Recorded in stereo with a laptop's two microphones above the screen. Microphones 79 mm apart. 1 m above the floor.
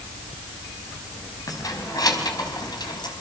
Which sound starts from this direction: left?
Keys jangling, at 1.5 s.